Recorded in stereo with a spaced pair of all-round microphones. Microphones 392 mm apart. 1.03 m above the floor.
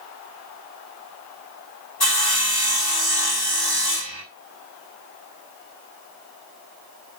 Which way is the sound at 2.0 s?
70° left (ahead or behind).